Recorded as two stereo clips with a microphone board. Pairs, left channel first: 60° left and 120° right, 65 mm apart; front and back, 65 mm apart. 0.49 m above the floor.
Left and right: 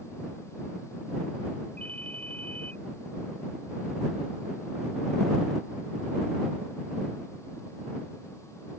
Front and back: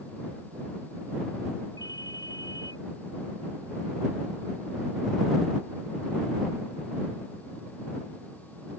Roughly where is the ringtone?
Ahead.